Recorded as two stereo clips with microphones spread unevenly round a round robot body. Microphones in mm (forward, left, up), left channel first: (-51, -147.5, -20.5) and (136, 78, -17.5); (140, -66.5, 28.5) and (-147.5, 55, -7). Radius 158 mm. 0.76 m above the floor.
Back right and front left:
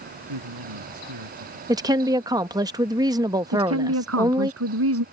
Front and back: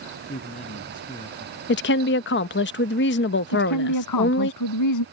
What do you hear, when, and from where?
0.3 s a man speaking: 45° left; by 1.6 s 50° left
1.7 s a woman speaking: 15° right
3.5 s a woman speaking: 10° left